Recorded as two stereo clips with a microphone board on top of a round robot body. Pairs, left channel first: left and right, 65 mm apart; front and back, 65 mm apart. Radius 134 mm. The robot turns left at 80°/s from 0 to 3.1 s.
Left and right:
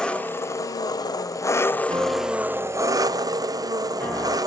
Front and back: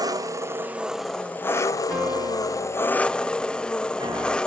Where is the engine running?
170° left, 1.0 m; by 4.5 s 75° right, 1.0 m.